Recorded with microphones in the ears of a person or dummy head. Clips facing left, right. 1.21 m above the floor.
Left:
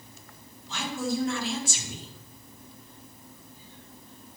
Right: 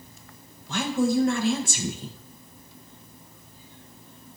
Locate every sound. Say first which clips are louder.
0.7 s a woman speaking: right 7 dB; 45° right (ahead or behind), 1.4 m